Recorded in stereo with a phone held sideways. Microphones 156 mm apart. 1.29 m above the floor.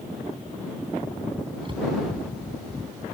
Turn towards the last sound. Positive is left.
turn(degrees=-35)  # may be behind; listen again after turning